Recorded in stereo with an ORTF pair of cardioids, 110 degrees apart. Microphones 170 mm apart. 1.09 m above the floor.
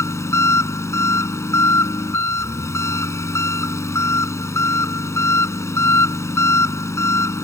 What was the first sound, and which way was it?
An engine running, 15° left.